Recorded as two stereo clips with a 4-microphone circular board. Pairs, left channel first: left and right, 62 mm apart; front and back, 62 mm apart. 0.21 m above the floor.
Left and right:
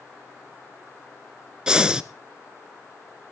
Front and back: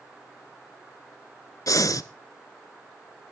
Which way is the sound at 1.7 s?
15° right.